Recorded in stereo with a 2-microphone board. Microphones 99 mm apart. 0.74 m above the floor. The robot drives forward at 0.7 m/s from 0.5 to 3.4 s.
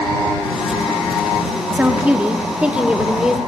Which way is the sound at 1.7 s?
15° right (ahead or behind).